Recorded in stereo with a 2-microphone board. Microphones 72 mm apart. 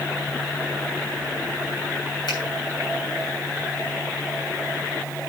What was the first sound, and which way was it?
A finger snap, 80° left.